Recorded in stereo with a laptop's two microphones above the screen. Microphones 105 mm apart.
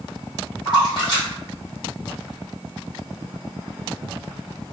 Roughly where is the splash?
Left.